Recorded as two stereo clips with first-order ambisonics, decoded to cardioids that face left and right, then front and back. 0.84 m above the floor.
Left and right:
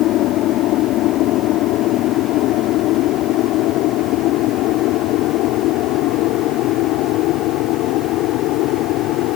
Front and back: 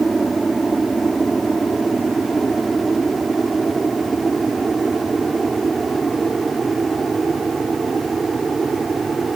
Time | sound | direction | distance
0.0 | an aircraft | 100° left | ?